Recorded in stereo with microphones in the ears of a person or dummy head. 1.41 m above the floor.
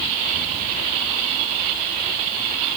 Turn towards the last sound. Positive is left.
No sound to turn to.